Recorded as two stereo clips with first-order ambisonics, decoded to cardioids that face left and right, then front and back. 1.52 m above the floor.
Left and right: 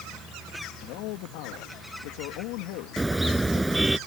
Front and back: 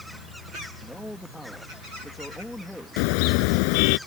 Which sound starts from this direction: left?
A man speaking, at 0.8 s.